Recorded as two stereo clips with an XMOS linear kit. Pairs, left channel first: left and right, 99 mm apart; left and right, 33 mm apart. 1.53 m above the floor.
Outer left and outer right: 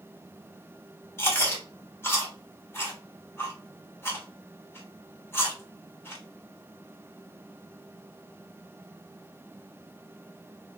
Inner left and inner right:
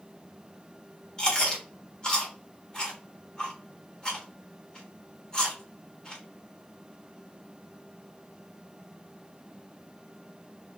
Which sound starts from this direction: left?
Chewing, at 1.2 s.